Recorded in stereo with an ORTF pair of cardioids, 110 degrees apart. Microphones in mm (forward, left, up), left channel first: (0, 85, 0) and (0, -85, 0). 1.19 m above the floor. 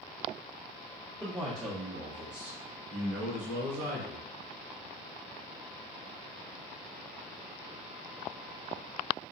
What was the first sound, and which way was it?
A man speaking, 5° right.